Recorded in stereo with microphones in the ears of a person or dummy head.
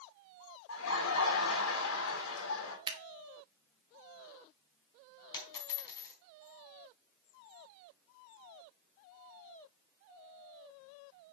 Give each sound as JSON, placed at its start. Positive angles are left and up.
{"t": 0.7, "sound": "laughter", "side_deg": 75, "distance_m": 3.5}
{"t": 2.9, "sound": "scissors", "side_deg": -20, "distance_m": 1.7}
{"t": 5.3, "sound": "a dropped coin", "side_deg": 20, "distance_m": 4.0}